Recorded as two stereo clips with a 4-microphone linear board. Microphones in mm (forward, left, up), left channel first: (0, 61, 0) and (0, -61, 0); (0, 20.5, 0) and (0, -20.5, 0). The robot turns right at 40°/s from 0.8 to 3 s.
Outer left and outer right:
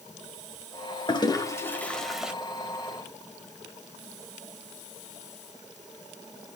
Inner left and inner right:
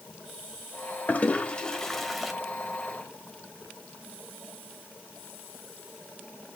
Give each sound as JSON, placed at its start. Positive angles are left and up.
{"t": 1.1, "sound": "a toilet flushing", "side_deg": 40, "distance_m": 1.3}